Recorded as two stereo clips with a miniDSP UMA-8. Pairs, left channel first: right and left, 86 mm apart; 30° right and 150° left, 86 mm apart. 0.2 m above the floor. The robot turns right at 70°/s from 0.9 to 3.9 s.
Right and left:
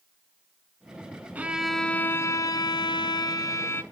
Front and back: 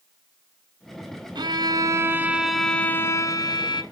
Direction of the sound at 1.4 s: 155° left.